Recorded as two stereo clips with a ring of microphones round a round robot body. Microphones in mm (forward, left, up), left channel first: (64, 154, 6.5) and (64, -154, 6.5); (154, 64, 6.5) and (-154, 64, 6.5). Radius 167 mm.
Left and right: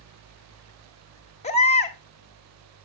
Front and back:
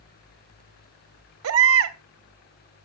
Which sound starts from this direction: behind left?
A baby crying, at 1.4 s.